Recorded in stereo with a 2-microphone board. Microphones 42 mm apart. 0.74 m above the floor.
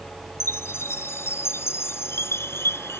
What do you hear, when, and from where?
0.4 s a chime: 75° left (ahead or behind)